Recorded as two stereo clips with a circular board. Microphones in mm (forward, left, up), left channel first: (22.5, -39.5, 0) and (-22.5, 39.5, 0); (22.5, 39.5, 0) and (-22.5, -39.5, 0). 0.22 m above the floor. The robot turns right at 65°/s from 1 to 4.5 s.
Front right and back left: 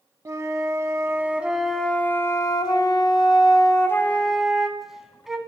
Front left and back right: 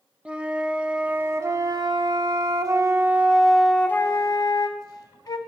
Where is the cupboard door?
No cupboard door in this recording.